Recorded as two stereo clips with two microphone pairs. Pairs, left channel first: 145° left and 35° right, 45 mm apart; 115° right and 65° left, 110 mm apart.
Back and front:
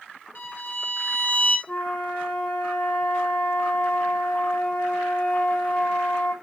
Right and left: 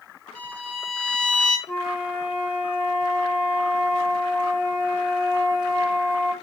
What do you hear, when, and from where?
0.3 s a violin: 170° left, 2.0 m
1.7 s a flute: 155° right, 3 m